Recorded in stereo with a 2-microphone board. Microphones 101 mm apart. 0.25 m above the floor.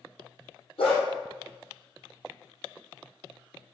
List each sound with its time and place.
0.8 s a dog barking: 75° left (ahead or behind), 2.5 m